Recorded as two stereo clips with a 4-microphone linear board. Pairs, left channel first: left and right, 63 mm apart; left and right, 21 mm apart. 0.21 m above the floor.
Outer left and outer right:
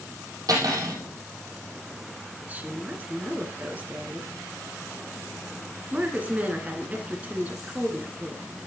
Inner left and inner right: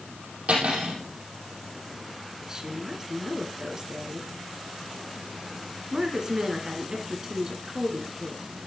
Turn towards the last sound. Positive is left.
turn(degrees=-25)  # may be behind; listen again after turning